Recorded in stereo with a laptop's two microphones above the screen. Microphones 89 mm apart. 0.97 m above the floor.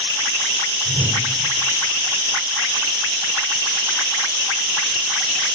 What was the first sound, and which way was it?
A whoosh, 45° right (ahead or behind).